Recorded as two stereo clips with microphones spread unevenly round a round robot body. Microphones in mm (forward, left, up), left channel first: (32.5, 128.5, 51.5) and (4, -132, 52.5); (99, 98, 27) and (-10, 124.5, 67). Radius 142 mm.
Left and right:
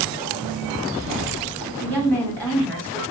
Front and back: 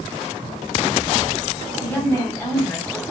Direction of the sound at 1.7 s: 5° left.